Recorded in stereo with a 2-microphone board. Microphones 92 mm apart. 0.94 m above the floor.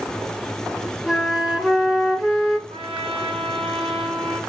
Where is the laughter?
I don't hear laughter.